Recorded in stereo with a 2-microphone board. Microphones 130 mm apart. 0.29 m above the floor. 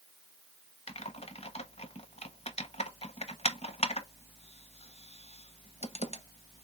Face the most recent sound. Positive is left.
turn(degrees=55)  # may be behind; listen again after turning